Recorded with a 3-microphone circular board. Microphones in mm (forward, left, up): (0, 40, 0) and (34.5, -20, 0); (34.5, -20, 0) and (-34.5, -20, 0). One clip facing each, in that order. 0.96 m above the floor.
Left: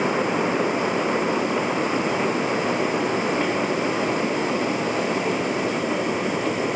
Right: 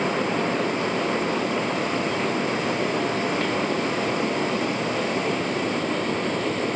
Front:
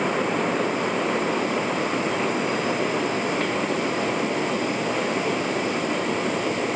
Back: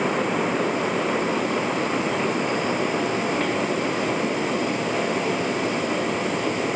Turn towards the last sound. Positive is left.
No sound to turn to.